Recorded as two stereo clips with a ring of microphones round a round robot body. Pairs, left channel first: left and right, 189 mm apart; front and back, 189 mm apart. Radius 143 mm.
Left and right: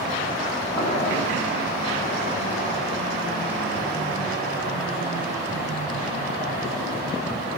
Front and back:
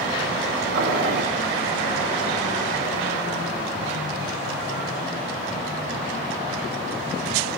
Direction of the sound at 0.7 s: 165° left.